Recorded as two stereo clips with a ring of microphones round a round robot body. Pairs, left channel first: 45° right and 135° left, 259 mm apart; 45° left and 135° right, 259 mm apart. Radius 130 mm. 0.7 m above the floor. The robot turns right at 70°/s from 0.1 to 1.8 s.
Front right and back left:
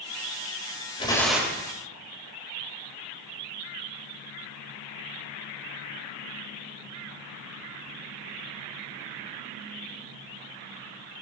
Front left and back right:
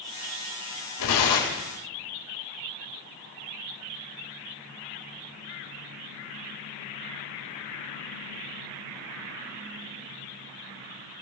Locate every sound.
1.0 s tearing paper: 25° left, 4 m; by 1.7 s 70° left, 4 m